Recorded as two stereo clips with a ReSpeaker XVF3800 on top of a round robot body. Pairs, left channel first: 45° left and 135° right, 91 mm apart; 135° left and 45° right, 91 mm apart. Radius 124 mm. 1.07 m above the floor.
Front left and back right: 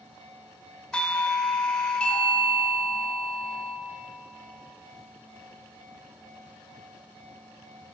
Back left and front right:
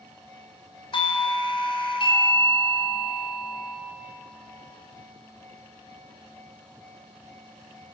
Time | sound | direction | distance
0.9 | a doorbell | 120° left | 1.7 m